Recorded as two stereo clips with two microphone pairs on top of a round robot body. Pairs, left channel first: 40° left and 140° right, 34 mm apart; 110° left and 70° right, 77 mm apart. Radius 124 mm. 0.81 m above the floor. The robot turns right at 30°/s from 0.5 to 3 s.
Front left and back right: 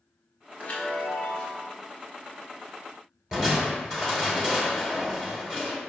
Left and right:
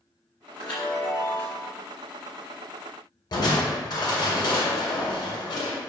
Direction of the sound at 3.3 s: 145° left.